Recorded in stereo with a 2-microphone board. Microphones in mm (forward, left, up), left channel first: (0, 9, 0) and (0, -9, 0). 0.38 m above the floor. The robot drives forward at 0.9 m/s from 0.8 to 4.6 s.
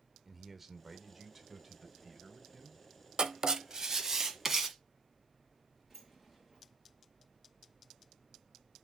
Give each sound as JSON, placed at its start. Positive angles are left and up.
{"t": 0.2, "sound": "a man speaking", "side_deg": -15, "distance_m": 0.9}
{"t": 3.2, "sound": "writing", "side_deg": -50, "distance_m": 0.7}
{"t": 5.9, "sound": "a sliding door", "side_deg": -15, "distance_m": 5.0}